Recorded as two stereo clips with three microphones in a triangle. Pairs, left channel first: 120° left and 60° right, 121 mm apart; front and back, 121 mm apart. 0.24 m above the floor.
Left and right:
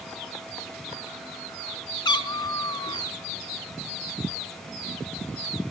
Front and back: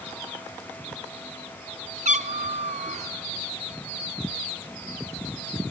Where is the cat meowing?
175° left, 0.5 m.